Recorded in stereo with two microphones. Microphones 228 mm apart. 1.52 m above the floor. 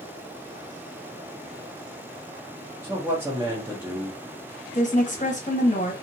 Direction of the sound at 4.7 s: 35° left (ahead or behind).